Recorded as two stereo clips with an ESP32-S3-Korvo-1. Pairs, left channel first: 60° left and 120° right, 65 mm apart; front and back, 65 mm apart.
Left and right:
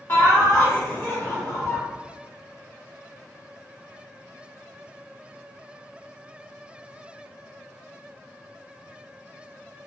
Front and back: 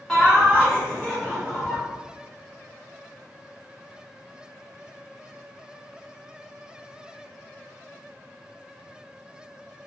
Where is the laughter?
85° left, 0.8 m.